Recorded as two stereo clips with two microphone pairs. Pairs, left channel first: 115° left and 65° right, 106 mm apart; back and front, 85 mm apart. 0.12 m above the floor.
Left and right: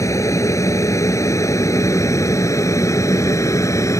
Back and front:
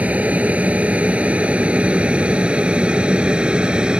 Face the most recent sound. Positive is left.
turn(degrees=70)